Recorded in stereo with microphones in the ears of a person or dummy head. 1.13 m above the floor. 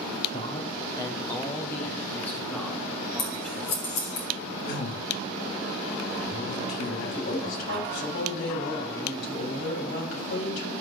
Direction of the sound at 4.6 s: 65° left (ahead or behind).